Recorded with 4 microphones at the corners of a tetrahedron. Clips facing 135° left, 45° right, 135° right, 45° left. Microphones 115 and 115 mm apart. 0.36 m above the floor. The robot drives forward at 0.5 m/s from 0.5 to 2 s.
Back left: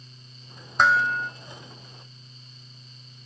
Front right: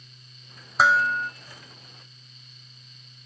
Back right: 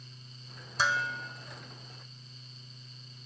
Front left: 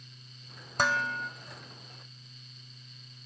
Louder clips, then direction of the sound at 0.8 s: Even, front left 2 dB; 40° left.